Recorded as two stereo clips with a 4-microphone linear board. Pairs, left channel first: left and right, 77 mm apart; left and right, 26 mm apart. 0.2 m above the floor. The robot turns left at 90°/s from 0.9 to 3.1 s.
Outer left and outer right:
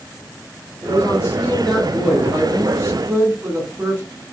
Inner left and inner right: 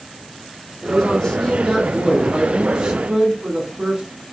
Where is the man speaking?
80° left, 1.3 m; by 4.0 s 120° right, 1.3 m.